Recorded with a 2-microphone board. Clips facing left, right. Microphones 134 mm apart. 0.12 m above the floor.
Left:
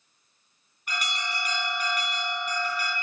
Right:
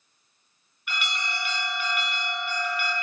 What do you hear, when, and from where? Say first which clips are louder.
0.9 s an alarm: even; 40° left (ahead or behind), 2.5 m